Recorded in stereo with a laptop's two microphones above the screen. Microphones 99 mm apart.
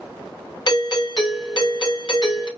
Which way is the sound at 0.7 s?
45° left (ahead or behind).